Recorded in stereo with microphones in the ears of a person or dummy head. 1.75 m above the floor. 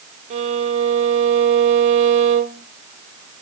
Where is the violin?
40° right (ahead or behind), 1.5 m.